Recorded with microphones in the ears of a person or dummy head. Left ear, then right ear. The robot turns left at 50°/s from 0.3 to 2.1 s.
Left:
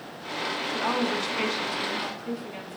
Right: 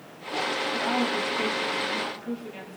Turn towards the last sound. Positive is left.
turn(degrees=15)